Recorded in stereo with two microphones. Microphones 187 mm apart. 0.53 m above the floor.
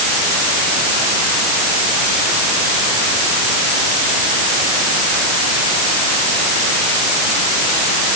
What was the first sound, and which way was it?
Only background noise.